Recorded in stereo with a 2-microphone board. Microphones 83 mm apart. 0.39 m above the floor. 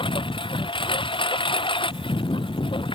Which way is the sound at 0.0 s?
85° left.